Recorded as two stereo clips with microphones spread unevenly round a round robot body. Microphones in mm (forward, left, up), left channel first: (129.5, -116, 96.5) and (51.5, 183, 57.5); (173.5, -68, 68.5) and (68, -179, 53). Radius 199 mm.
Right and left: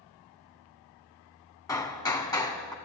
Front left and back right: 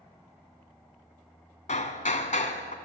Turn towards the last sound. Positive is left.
turn(degrees=5)